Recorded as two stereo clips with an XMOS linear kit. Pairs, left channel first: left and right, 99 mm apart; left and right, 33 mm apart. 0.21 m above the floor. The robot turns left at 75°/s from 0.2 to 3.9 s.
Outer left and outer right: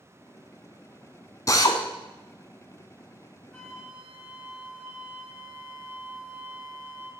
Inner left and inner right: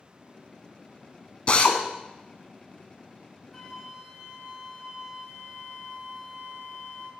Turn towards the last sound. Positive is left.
turn(degrees=-15)  # may be behind; listen again after turning